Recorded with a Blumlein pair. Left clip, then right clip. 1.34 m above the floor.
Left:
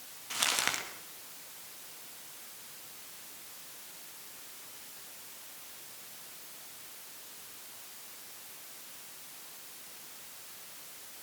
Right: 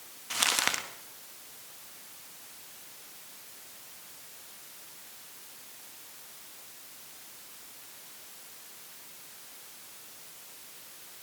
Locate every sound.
0.3 s crumpling: 15° right, 1.9 m